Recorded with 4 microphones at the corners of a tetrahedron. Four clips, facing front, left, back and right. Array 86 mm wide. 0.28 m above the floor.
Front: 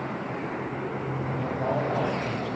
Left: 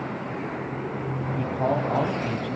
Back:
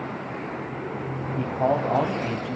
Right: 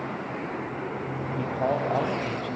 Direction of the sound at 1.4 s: 175° left.